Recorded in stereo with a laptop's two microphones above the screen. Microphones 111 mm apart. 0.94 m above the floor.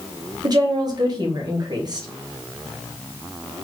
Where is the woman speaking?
40° right (ahead or behind), 0.7 m.